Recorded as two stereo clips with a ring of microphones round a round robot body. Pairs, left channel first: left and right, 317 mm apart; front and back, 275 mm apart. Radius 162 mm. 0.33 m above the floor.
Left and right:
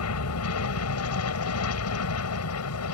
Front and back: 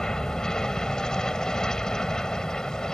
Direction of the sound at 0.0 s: 85° left.